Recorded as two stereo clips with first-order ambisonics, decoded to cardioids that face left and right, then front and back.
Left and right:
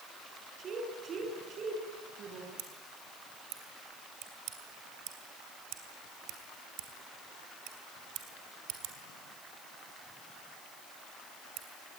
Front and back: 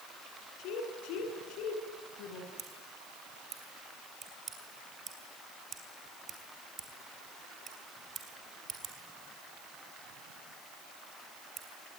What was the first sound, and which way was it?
A woman speaking, 30° right.